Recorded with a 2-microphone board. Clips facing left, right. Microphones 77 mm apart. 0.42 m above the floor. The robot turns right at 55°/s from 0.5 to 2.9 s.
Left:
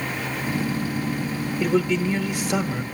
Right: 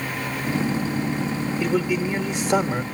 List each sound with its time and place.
1.6 s a man speaking: 175° left, 1.0 m; by 2.8 s 115° right, 1.0 m